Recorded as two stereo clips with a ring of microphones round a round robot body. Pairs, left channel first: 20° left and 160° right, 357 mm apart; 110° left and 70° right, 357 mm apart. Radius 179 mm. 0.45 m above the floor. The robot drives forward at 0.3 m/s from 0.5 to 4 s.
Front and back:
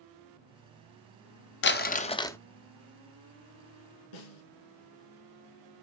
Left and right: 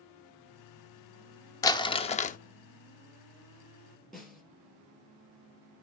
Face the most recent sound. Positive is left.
turn(degrees=25)